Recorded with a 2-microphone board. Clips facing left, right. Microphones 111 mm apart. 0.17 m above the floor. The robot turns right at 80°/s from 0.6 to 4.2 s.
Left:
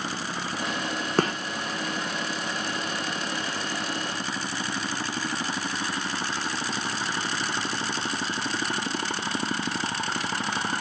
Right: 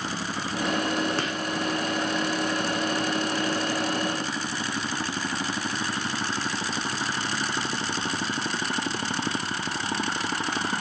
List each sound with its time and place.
1.2 s a gunshot: 45° left (ahead or behind), 0.6 m; by 1.4 s 35° left (ahead or behind), 0.6 m